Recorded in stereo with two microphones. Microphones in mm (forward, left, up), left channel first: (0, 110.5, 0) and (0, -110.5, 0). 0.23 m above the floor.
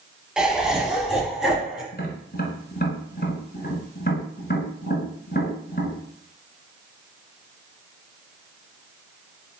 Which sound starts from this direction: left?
Tapping, at 1.9 s.